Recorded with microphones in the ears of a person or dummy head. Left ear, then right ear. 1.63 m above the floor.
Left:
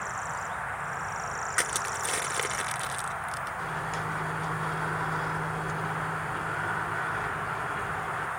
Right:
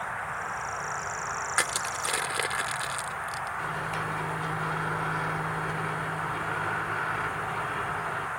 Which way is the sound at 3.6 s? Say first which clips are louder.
Right 1 dB; 10° right (ahead or behind).